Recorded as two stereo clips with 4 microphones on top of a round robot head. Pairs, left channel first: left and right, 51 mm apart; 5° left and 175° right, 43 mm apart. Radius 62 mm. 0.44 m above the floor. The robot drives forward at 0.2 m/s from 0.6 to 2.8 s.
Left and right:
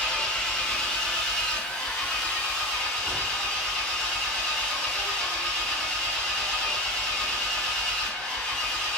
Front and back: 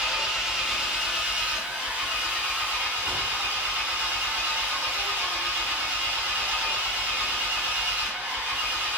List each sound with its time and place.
0.0 s an engine running: 135° left, 0.9 m; by 9.0 s 160° left, 1.1 m